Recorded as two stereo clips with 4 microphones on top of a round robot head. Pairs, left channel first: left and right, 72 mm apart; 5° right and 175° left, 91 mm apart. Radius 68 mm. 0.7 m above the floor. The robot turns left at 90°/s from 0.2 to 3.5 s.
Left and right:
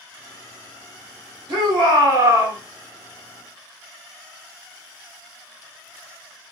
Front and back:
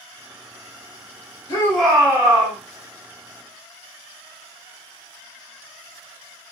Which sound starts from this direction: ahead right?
A shout, at 1.5 s.